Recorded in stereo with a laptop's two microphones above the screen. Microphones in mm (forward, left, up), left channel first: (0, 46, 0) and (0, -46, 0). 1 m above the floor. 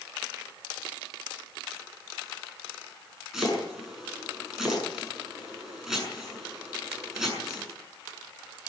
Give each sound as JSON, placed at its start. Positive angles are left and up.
{"t": 3.3, "sound": "chopping", "side_deg": -5, "distance_m": 6.5}